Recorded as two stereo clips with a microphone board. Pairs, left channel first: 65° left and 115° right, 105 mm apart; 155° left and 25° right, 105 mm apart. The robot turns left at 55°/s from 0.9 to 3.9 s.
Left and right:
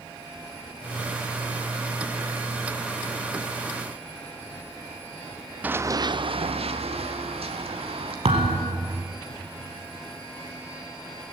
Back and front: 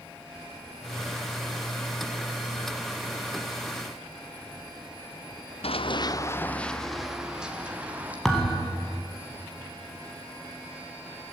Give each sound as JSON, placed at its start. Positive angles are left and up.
{"t": 5.6, "sound": "running footsteps", "azimuth_deg": 175, "distance_m": 1.1}
{"t": 8.2, "sound": "a thud", "azimuth_deg": -115, "distance_m": 4.0}